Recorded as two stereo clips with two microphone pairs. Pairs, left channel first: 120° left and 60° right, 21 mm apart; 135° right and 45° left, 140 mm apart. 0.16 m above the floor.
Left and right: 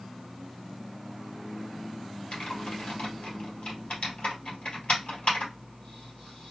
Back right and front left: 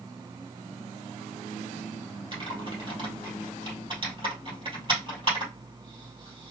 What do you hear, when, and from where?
2.3 s typing on a keyboard: 100° left, 3 m